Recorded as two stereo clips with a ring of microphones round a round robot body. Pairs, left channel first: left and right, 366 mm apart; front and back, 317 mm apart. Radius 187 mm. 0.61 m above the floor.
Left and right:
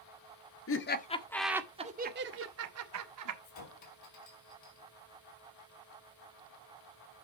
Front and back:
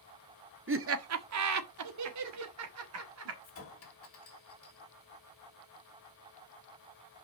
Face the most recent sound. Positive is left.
turn(degrees=45)